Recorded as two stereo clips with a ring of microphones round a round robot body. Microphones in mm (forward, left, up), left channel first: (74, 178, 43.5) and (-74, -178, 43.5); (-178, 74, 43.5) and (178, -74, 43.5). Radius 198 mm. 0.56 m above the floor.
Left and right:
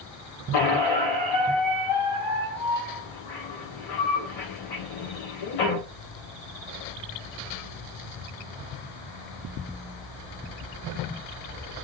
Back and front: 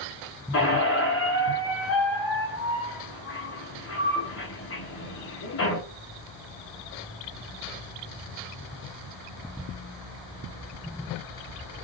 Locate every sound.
0.5 s a squeak: 100° left, 1.8 m